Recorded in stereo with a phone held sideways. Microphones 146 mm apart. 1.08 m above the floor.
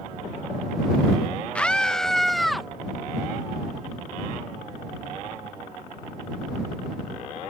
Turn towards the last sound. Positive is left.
turn(degrees=0)  # may be behind; listen again after turning